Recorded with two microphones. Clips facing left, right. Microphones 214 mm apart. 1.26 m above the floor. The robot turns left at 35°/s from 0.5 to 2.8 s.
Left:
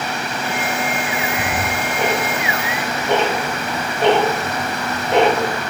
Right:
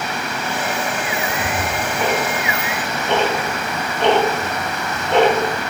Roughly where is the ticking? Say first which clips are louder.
Left 1 dB; left.